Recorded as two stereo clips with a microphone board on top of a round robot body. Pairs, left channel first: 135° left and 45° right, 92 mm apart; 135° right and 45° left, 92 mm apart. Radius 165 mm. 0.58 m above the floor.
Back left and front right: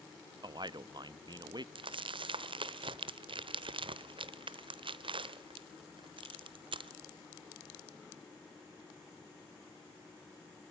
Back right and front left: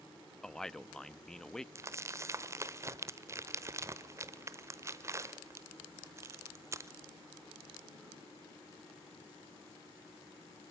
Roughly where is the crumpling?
Ahead.